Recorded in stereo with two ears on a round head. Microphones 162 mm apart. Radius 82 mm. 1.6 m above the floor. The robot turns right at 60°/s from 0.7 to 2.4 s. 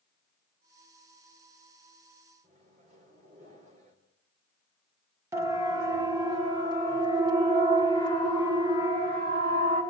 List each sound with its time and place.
2.4 s a microwave: 40° right (ahead or behind), 4.5 m
5.3 s a siren: 15° right (ahead or behind), 2 m; by 9.8 s 25° right (ahead or behind), 6 m